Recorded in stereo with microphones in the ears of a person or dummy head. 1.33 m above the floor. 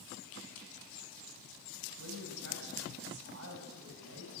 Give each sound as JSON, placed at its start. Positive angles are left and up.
{"t": 2.0, "sound": "a woman speaking", "side_deg": -80, "distance_m": 5.0}